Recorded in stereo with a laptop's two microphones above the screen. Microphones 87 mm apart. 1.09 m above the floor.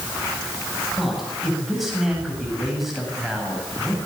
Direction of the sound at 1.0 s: 5° right (ahead or behind).